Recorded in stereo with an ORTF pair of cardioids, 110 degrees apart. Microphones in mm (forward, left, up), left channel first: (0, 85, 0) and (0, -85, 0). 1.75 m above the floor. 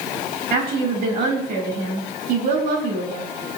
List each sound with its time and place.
0.5 s a woman speaking: 70° right, 3.5 m